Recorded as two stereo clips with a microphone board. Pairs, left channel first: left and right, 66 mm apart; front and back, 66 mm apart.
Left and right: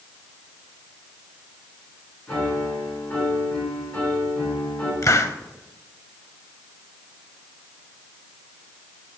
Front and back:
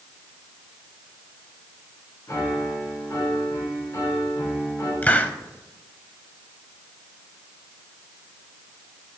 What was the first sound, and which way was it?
A piano, 20° left.